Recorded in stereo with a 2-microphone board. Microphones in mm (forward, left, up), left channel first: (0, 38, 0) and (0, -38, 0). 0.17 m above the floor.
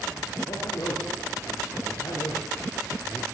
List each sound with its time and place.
0.5 s a man speaking: 55° left (ahead or behind), 3.5 m